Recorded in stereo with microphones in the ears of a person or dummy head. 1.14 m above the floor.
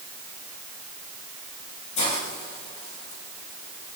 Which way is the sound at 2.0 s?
40° left (ahead or behind).